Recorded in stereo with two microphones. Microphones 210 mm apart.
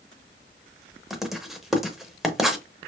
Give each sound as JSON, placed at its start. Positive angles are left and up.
{"t": 1.1, "sound": "writing", "side_deg": 0, "distance_m": 0.6}